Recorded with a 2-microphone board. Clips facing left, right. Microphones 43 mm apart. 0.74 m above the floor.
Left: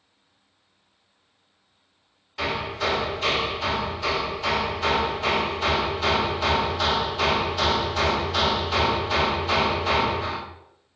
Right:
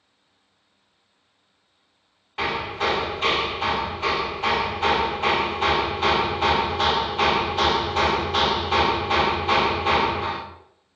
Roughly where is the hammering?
Right.